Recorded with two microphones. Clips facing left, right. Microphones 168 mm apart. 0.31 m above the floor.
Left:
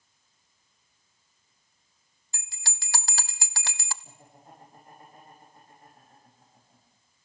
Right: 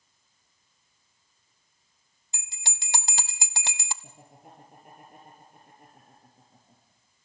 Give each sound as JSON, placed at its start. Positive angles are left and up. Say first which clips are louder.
{"t": 2.3, "sound": "a bell", "louder": "right 1 dB", "side_deg": -20, "distance_m": 0.6}
{"t": 4.0, "sound": "laughter", "louder": "right 1 dB", "side_deg": -75, "distance_m": 5.5}